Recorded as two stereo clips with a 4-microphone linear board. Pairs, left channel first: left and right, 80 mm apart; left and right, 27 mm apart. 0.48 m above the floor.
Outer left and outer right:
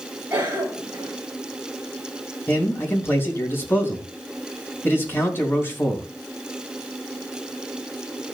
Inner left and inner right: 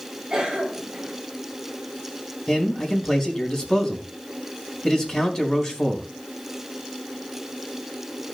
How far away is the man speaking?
About 4 m.